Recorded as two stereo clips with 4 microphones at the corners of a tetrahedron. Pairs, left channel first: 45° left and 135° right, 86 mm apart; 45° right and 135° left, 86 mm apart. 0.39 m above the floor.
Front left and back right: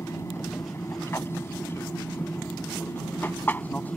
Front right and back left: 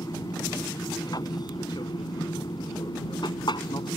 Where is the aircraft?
10° right; by 4.0 s 25° right.